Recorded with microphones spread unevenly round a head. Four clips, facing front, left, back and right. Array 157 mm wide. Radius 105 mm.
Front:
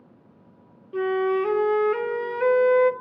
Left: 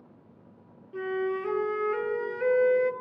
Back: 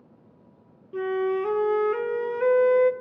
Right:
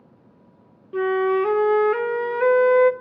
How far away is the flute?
About 0.6 m.